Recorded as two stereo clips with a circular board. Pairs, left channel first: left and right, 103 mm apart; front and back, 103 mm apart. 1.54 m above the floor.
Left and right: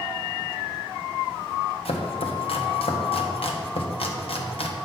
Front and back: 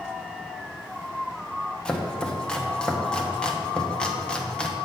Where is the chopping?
80° left, 0.9 m.